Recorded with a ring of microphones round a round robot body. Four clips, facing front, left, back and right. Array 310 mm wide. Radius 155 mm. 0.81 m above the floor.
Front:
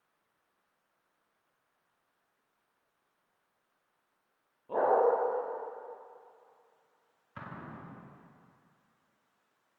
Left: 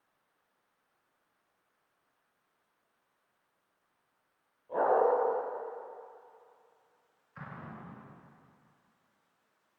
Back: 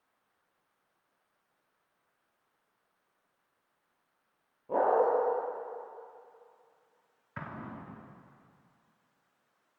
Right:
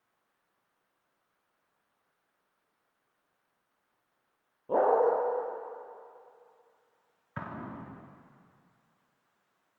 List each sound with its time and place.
4.7 s a dog barking: 100° right, 8.5 m
7.4 s an explosion: 105° right, 2 m